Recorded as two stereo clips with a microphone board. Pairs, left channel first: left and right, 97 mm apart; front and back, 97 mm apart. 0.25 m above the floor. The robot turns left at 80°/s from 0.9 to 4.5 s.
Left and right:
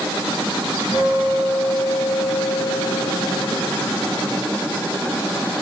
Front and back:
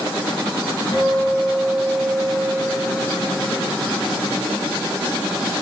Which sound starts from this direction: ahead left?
A guitar, at 0.9 s.